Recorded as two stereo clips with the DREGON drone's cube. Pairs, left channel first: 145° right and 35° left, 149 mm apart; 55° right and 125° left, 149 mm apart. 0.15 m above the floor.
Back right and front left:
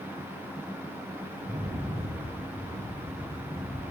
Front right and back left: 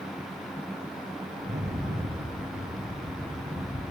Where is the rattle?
90° left, 4 m.